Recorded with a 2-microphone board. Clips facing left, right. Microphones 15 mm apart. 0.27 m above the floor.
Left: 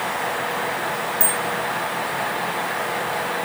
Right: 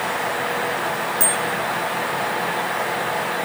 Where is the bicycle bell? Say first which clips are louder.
Right 2 dB; 35° right (ahead or behind), 7 m.